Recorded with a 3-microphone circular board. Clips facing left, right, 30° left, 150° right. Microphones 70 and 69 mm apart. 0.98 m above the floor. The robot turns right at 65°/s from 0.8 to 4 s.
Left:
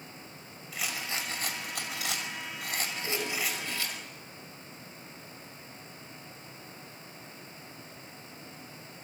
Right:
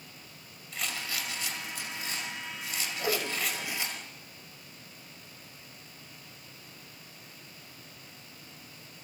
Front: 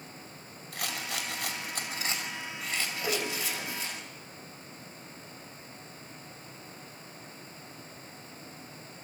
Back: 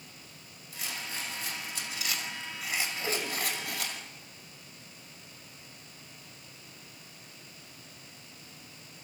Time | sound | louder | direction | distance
0.7 | a rattle | left 1 dB, front 3 dB | 5° left | 5 m
3.0 | a whoosh | right 5 dB, front 1 dB | 55° right | 4 m